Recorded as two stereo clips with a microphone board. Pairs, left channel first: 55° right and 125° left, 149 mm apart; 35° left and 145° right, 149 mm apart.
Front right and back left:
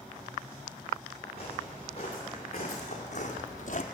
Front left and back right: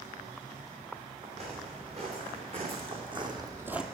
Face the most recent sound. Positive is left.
turn(degrees=-60)